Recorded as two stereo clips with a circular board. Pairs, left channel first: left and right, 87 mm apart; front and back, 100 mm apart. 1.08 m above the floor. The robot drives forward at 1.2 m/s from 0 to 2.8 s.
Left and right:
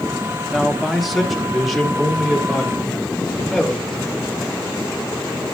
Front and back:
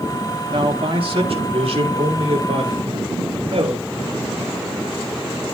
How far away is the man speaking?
About 1.0 m.